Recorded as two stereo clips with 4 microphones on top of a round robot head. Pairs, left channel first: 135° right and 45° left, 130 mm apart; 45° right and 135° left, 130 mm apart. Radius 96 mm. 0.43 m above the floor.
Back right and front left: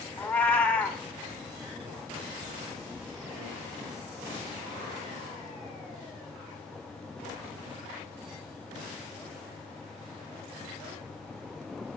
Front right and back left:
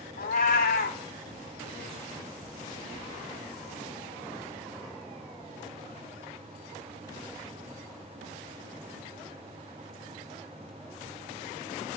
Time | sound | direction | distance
0.2 | a cat meowing | 55° right | 0.7 m